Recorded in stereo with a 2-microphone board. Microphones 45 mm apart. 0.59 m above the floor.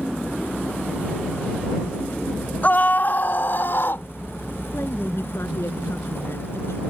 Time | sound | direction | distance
2.6 | a scream | 45° left (ahead or behind) | ?
4.7 | a woman speaking | 75° left (ahead or behind) | ?